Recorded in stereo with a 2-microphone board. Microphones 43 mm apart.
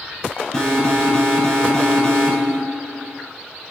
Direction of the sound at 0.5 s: 10° left (ahead or behind).